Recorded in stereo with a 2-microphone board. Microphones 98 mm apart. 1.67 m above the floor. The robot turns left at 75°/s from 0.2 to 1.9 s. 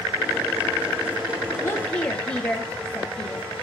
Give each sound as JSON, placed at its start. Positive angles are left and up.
{"t": 1.6, "sound": "a woman speaking", "side_deg": 35, "distance_m": 2.5}